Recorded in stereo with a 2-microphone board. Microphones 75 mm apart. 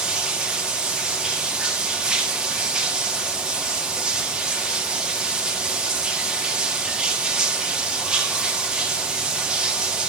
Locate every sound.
0.0 s running water: 10° right (ahead or behind), 1.8 m